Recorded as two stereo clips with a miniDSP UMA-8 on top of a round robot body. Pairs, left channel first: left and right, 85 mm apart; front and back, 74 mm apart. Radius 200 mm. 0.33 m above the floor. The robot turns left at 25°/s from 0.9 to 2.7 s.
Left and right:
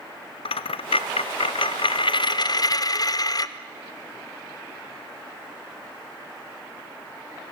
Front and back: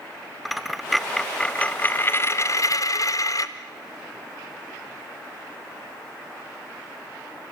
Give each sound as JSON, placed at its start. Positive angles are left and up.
{"t": 0.5, "sound": "a dropped coin", "azimuth_deg": 90, "distance_m": 0.7}